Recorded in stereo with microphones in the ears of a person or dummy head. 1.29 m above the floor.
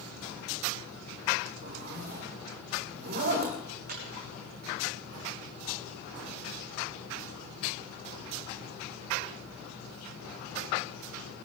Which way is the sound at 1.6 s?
50° right (ahead or behind).